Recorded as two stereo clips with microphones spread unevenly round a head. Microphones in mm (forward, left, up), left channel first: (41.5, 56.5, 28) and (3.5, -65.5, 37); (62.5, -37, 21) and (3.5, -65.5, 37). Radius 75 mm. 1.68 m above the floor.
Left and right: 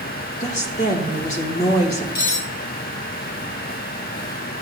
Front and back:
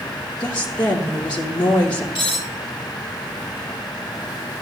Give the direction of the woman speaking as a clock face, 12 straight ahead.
11 o'clock.